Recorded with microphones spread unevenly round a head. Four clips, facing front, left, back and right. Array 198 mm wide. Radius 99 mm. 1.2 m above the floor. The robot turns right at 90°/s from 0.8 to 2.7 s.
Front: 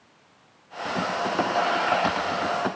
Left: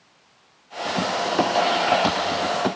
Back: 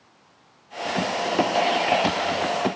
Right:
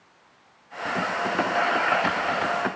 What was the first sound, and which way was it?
Only background noise.